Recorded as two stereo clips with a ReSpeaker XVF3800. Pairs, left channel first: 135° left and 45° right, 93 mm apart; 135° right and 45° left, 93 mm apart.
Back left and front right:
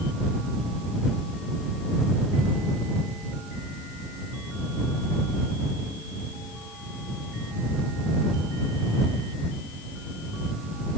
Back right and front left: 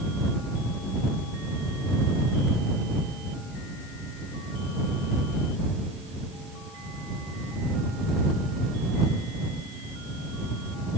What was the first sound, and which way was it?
Only background noise.